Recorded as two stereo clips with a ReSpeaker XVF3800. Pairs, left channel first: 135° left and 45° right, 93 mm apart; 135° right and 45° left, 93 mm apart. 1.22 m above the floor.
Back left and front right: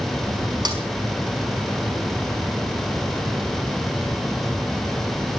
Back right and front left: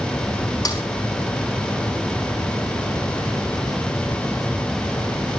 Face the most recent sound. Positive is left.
turn(degrees=-85)